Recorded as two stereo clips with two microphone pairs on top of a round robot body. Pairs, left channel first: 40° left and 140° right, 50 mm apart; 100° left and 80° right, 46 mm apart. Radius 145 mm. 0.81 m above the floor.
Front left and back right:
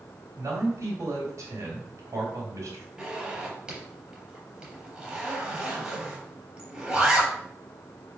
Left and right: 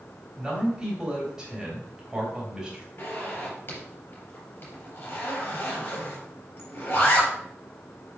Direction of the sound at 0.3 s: 155° right.